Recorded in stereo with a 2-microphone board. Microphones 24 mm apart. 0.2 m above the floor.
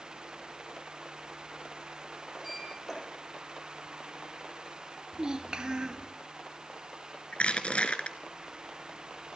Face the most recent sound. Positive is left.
turn(degrees=55)  # may be behind; listen again after turning